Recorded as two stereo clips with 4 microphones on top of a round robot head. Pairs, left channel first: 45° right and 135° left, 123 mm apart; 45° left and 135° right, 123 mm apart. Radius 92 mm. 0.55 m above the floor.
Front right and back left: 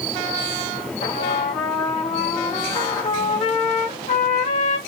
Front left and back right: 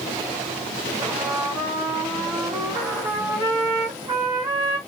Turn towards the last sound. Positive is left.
turn(degrees=-80)